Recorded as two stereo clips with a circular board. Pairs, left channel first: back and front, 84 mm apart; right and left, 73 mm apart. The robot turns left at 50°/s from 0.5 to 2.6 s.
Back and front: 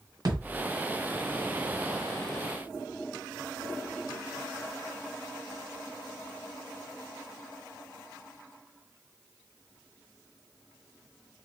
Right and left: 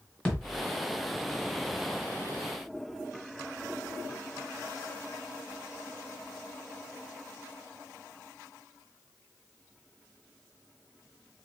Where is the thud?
15° right, 1.6 m; by 0.7 s 25° right, 1.6 m.